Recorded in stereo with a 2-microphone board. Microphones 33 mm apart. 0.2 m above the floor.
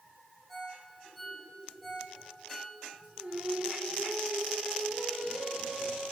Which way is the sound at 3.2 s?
45° right (ahead or behind).